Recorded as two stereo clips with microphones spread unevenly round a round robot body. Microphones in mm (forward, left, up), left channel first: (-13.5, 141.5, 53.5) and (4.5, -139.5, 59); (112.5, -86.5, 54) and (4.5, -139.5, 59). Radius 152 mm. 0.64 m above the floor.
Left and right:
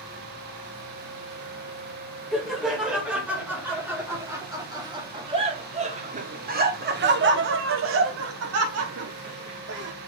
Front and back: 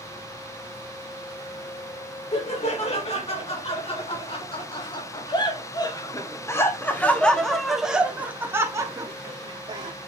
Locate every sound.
2.3 s laughter: 5° left, 3.5 m; by 9.9 s 110° right, 2 m